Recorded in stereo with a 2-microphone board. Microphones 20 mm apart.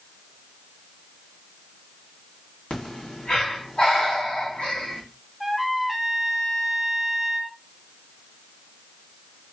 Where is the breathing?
60° left (ahead or behind), 2 m.